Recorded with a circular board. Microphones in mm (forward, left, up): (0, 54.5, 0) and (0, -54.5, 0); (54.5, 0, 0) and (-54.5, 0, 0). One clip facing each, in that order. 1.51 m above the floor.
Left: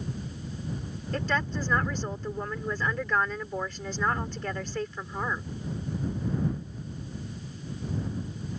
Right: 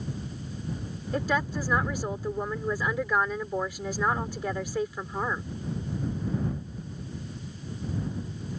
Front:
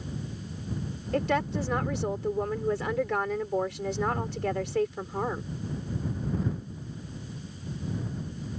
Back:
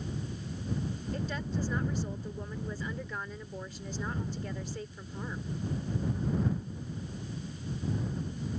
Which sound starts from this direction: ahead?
A woman speaking, at 1.1 s.